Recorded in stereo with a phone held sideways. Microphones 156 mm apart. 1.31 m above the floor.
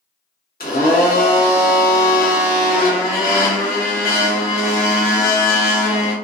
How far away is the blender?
About 1.0 m.